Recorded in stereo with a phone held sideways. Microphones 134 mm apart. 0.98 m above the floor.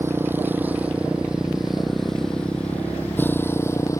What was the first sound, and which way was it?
A motorcycle, 20° right (ahead or behind).